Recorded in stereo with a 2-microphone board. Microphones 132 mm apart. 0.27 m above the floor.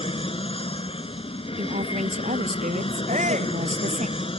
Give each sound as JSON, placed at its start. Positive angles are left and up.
{"t": 0.0, "sound": "an aircraft", "side_deg": 45}
{"t": 1.6, "sound": "a woman speaking", "side_deg": -65}
{"t": 3.1, "sound": "a shout", "side_deg": -65}